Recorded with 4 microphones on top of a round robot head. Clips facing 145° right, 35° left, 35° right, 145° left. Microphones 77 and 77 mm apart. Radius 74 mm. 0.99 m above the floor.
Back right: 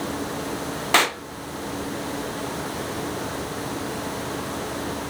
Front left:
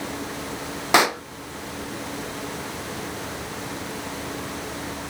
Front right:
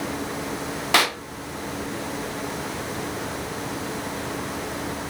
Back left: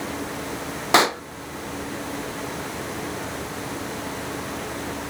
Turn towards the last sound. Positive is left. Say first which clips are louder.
# front left 2 dB, back left 4 dB
turn(degrees=100)